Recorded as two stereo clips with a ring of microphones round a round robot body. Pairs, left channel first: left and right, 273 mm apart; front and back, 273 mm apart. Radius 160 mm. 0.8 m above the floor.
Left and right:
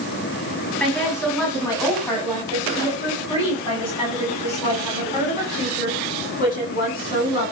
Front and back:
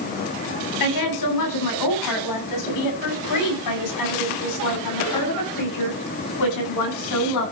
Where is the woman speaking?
5° left, 7.5 m; by 7.5 s 30° left, 9 m.